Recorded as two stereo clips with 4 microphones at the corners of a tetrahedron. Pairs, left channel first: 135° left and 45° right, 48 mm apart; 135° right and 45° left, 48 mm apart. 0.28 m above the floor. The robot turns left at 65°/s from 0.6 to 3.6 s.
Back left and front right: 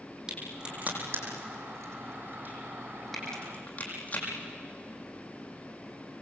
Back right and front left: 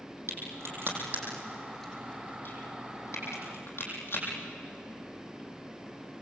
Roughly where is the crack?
Ahead left.